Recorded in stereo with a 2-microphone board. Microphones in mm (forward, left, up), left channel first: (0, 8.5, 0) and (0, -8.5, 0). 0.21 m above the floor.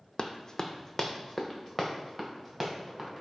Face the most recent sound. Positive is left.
turn(degrees=-20)  # may be behind; listen again after turning